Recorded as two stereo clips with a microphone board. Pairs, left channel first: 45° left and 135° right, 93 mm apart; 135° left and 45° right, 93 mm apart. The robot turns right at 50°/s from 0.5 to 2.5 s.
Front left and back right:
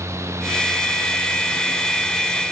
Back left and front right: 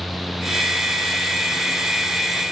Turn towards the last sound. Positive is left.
No sound to turn to.